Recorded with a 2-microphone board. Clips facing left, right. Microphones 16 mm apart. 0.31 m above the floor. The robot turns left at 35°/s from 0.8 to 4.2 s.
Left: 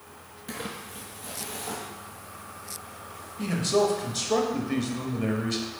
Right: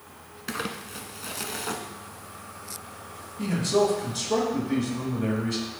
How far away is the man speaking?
About 1.2 m.